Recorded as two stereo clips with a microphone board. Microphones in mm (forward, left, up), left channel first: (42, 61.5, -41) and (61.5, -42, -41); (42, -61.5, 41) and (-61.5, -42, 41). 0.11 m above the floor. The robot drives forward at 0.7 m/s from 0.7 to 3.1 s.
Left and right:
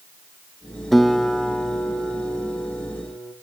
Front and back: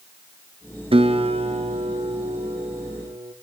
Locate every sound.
0.9 s a guitar: 170° right, 0.7 m; by 3.3 s 175° right, 2 m